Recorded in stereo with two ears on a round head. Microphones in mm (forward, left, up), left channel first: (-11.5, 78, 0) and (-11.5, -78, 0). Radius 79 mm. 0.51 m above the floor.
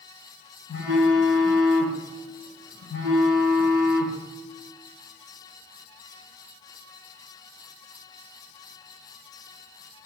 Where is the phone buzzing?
80° left, 1.5 m.